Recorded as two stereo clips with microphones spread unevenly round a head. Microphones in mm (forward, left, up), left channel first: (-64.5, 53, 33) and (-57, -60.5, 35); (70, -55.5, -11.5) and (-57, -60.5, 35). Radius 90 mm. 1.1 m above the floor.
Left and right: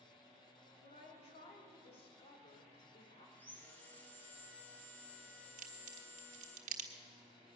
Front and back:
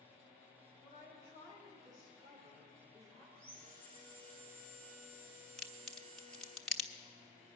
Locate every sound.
0.8 s a woman speaking: 120° left, 3 m; by 3.2 s 135° left, 4 m
3.4 s sawing: 170° left, 3.5 m
5.6 s a crack: 90° right, 1.2 m